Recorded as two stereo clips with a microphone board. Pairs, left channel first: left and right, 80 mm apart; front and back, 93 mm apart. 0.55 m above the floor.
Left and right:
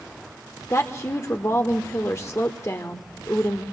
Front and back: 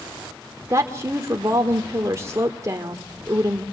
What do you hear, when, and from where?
0.7 s a woman speaking: 130° left, 1.5 m